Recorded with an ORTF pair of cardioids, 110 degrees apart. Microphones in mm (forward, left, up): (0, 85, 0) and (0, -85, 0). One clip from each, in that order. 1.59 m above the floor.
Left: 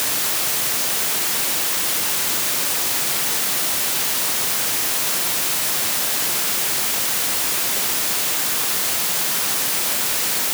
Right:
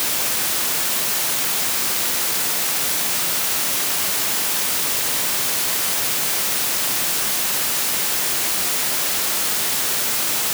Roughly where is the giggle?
No giggle in this recording.